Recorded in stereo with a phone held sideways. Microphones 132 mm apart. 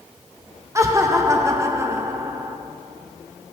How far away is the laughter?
About 0.6 m.